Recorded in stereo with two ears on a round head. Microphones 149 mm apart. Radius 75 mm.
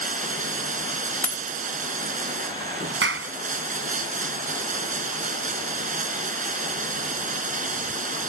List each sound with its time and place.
0.0 s running water: 50° right (ahead or behind)
1.2 s a dropped coin: 10° left (ahead or behind)
3.0 s a clap: 75° right (ahead or behind)